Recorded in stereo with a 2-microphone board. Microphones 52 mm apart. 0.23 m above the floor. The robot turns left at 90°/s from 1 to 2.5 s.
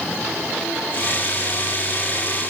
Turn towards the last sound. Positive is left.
No sound to turn to.